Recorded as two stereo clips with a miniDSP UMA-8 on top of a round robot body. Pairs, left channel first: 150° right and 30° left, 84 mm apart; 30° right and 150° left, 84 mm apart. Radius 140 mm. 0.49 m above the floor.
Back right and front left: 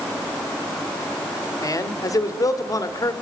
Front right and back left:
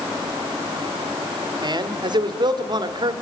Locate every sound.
1.6 s a man speaking: 170° left, 2.5 m